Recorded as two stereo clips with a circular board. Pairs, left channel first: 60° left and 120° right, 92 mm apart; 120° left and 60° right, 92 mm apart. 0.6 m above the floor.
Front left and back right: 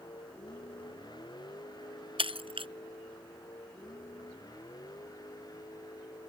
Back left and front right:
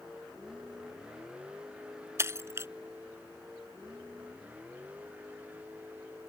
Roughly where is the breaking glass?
Behind right.